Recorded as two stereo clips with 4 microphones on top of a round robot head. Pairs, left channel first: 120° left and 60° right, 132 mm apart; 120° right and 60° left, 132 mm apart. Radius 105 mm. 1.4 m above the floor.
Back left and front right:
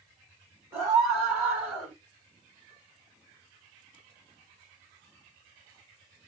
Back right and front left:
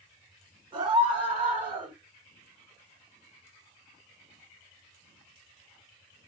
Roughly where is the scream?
Ahead.